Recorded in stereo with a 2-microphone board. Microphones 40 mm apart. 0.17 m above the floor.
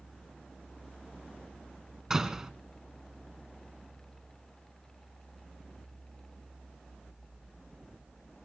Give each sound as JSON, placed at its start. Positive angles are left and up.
{"t": 2.1, "sound": "a door slam", "side_deg": -15, "distance_m": 1.3}